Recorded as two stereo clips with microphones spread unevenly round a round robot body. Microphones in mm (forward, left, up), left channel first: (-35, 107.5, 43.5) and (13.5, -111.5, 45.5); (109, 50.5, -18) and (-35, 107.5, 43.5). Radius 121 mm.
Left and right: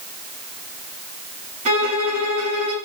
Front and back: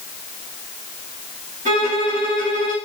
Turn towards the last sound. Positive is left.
turn(degrees=-140)